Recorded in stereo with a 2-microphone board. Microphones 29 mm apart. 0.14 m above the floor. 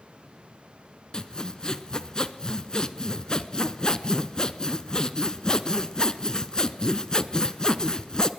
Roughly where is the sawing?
Left.